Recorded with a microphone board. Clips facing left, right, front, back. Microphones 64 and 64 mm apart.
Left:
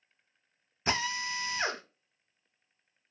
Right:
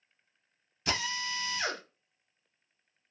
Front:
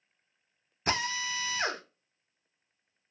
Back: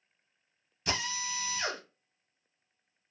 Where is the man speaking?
I don't hear a man speaking.